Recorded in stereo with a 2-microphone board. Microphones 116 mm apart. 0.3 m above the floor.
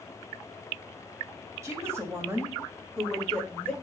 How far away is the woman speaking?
About 1.5 m.